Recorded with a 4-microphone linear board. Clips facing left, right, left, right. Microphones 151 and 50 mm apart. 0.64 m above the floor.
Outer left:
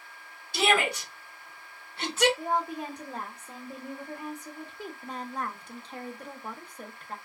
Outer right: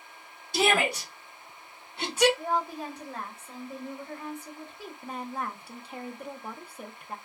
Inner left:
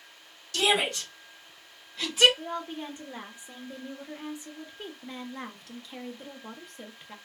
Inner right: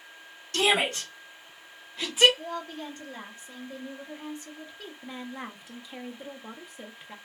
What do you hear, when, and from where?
0.5 s a shout: 40° right (ahead or behind), 1.4 m; by 2.3 s 10° right (ahead or behind), 1.1 m
2.4 s a woman speaking: 20° left (ahead or behind), 1.0 m
5.0 s a woman speaking: 10° right (ahead or behind), 0.6 m